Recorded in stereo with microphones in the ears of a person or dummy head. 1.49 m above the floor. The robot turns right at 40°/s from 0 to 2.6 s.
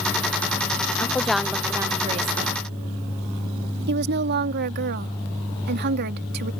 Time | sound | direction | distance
1.0 | a woman speaking | 165° left | ?
3.9 | a woman speaking | 50° right (ahead or behind) | ?